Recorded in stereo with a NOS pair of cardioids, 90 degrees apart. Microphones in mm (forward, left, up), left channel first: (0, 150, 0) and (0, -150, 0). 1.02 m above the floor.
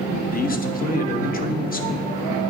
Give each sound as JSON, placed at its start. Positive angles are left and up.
{"t": 0.3, "sound": "a man speaking", "azimuth_deg": 30, "distance_m": 1.1}